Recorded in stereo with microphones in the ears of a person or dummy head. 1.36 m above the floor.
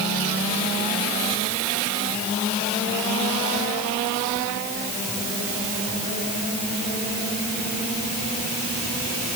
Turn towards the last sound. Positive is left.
No sound to turn to.